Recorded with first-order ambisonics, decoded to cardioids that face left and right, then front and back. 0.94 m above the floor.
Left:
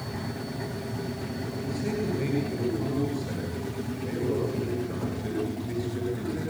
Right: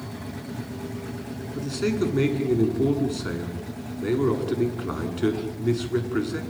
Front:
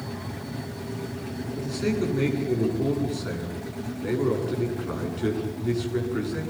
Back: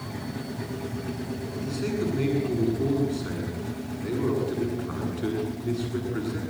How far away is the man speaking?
About 8 m.